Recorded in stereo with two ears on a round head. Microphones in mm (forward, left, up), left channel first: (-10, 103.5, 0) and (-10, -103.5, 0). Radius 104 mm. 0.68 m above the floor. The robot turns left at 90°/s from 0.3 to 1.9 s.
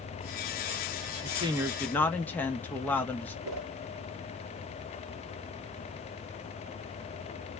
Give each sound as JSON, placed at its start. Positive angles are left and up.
{"t": 1.2, "sound": "a woman speaking", "azimuth_deg": -130, "distance_m": 0.6}
{"t": 3.5, "sound": "a whoosh", "side_deg": -75, "distance_m": 0.7}